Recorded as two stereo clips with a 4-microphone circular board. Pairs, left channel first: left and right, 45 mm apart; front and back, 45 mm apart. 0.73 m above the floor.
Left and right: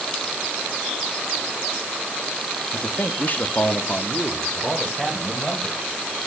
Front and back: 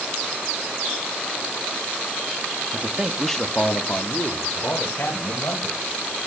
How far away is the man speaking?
About 0.9 m.